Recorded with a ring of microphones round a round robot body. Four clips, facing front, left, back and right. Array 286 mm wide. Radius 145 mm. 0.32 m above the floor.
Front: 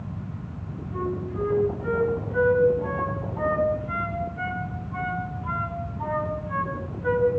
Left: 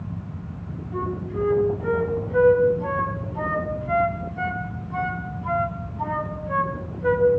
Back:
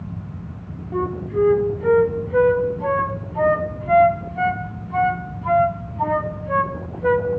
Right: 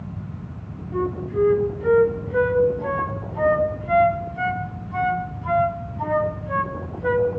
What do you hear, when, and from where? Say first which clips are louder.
0.9 s a flute: right 5 dB, back 7 dB; 170° right, 3 m